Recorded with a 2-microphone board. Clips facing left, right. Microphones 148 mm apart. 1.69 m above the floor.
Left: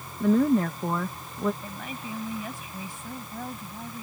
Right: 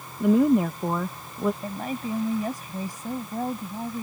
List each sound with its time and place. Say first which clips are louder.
0.2 s a woman speaking: right 2 dB; 15° right (ahead or behind)
1.6 s a woman speaking: right 7 dB; 45° right (ahead or behind)